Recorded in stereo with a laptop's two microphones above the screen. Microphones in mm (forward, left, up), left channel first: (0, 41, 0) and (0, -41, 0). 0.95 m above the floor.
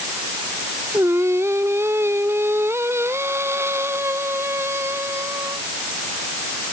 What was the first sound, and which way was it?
Singing, 35° right (ahead or behind).